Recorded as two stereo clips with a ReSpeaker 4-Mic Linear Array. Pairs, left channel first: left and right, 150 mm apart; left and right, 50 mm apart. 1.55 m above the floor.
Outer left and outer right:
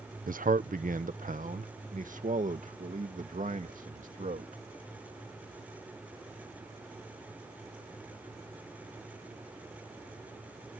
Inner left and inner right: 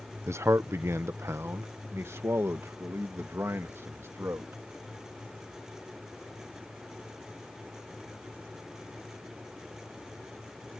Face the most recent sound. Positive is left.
turn(degrees=-60)  # may be behind; listen again after turning